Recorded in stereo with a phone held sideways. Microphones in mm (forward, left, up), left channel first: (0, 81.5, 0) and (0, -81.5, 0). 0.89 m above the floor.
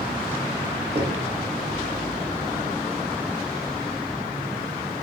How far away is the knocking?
About 1.5 m.